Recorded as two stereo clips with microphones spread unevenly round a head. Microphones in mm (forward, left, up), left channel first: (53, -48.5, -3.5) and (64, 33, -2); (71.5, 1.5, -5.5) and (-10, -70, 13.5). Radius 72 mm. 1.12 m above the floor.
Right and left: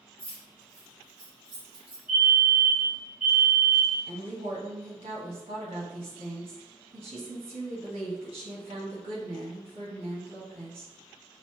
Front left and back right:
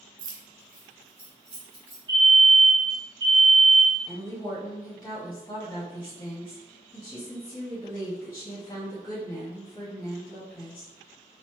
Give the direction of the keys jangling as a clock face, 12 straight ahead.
5 o'clock.